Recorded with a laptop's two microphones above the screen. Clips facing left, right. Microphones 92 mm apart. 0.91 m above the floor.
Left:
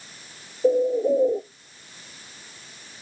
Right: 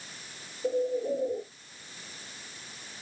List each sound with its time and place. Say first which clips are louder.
0.6 s a bird: left 9 dB; 40° left (ahead or behind), 1.7 m